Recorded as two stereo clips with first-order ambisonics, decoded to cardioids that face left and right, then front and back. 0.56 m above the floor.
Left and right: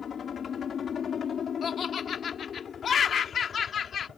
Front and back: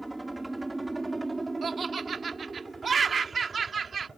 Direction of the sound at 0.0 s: 100° left.